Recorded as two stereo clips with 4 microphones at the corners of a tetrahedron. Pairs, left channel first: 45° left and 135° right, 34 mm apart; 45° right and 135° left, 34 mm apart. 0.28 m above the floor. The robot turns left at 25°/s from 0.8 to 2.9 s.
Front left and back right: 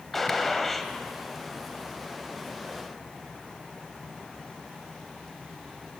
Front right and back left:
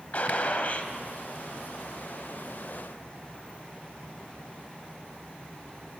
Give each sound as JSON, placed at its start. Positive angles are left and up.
{"t": 0.1, "sound": "a gunshot", "azimuth_deg": -40, "distance_m": 0.6}